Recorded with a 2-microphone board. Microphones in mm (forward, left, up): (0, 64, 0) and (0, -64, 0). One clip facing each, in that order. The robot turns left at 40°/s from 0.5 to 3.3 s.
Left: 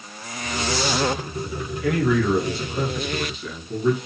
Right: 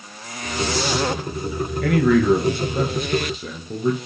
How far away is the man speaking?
About 3.5 m.